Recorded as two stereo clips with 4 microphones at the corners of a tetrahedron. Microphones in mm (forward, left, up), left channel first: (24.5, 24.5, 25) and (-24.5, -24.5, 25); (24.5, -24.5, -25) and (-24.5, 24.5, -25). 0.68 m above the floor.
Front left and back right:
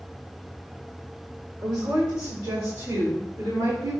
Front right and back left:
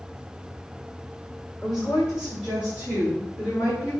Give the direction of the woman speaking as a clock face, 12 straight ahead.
5 o'clock.